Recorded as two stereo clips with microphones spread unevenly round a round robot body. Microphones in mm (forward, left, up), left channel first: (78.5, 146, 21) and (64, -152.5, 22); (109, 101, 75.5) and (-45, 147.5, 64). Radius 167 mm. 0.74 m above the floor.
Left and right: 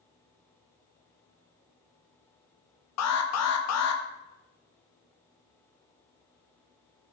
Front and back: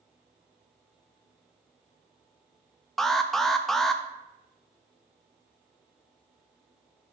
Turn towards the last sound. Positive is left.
turn(degrees=75)